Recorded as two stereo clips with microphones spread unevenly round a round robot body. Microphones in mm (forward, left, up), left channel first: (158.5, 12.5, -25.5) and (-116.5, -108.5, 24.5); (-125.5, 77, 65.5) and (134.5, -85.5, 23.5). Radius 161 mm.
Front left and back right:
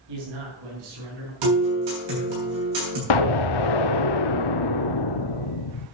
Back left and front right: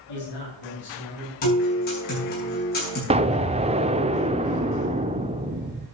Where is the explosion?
40° left, 0.5 m.